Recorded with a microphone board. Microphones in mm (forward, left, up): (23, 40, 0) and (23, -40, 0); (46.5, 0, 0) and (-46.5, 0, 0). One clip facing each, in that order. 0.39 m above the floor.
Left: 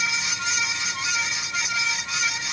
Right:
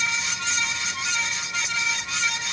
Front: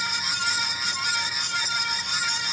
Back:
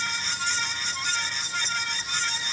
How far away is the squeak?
I don't hear a squeak.